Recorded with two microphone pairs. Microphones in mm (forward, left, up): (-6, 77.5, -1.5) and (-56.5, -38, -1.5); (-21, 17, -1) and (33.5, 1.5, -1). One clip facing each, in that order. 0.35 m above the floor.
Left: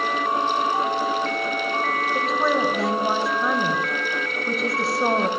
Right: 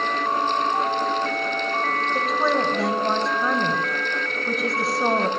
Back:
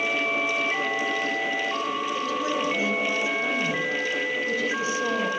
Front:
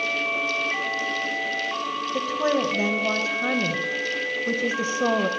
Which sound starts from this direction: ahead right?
A woman speaking, at 2.1 s.